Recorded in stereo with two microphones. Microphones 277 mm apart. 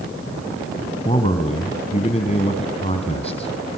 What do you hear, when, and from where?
1.1 s a man speaking: 20° left (ahead or behind), 3.5 m